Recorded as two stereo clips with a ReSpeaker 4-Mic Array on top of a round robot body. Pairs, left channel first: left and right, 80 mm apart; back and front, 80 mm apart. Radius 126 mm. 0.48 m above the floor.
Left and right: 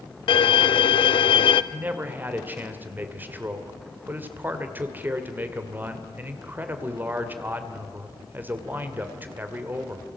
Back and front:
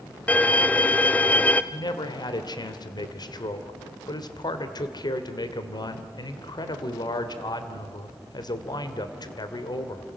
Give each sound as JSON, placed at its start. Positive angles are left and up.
{"t": 0.3, "sound": "a violin", "azimuth_deg": 110, "distance_m": 0.5}
{"t": 1.7, "sound": "a man speaking", "azimuth_deg": -155, "distance_m": 2.0}